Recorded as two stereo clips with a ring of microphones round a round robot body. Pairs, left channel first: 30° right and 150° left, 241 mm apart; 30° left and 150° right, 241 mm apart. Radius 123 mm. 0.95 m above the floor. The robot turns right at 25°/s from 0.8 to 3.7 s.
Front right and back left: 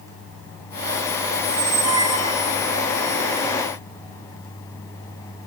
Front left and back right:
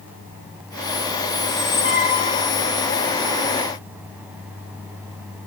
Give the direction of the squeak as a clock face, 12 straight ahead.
10 o'clock.